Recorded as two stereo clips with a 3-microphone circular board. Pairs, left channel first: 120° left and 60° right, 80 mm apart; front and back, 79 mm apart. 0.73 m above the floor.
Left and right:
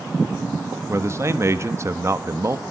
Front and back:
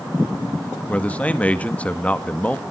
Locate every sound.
0.9 s a man speaking: 60° right, 1.2 m